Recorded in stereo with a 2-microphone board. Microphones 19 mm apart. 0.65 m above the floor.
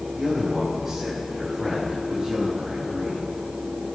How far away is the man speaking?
About 4 m.